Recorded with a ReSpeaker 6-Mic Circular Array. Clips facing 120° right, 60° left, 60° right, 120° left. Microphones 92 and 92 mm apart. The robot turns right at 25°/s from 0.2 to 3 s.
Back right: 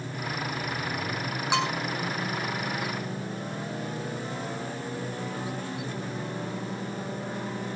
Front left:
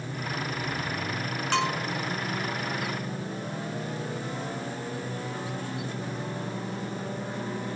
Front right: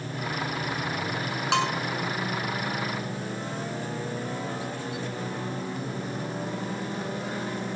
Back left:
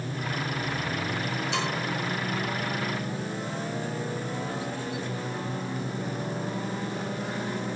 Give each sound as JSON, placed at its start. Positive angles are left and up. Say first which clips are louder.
{"t": 1.5, "sound": "a bell", "louder": "even, front right 7 dB", "azimuth_deg": -40, "distance_m": 6.5}